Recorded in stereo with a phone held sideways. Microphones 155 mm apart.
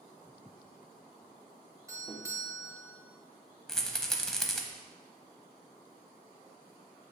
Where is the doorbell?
20° right (ahead or behind), 1.1 m.